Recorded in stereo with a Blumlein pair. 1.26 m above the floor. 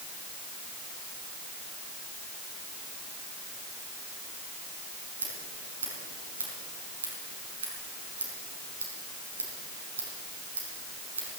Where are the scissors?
70° right, 5 m.